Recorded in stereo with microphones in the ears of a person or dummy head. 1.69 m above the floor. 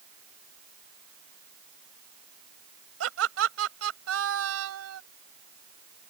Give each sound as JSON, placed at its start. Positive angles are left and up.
{"t": 3.0, "sound": "laughter", "side_deg": -85}